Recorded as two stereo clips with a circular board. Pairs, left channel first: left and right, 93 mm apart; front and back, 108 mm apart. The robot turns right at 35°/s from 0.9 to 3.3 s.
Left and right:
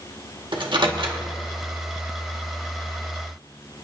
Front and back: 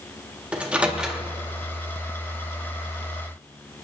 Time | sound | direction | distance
0.5 | a microwave | 105° right | 1.5 m